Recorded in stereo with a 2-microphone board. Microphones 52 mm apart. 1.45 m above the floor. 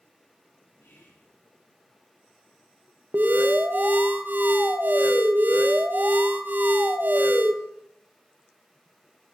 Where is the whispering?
55° left (ahead or behind), 2.5 m.